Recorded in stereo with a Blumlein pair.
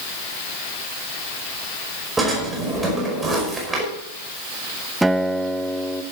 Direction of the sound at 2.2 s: 10° right.